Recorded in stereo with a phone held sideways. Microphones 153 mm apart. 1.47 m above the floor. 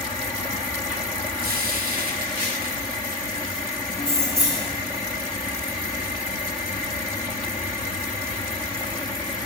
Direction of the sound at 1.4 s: 75° right (ahead or behind).